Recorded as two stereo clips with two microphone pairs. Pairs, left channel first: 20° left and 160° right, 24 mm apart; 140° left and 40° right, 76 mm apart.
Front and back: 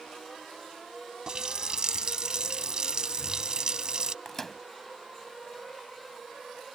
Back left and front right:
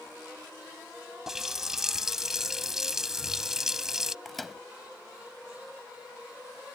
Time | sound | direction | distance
1.3 | a running tap | 125° right | ?
4.2 | a microwave | 55° left | ?